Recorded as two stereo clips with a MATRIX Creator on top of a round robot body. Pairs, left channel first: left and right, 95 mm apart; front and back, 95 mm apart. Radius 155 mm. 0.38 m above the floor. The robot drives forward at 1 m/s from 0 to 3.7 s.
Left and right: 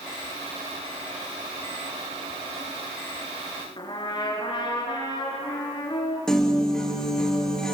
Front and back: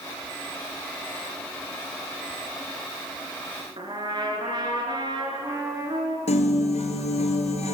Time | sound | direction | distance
3.8 | a trumpet | 135° left | 4 m
6.3 | a piano | 5° left | 2.5 m